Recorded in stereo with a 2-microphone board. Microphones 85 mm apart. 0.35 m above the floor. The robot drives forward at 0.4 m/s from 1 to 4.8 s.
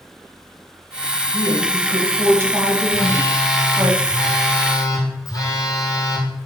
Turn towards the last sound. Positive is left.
turn(degrees=45)  # may be behind; listen again after turning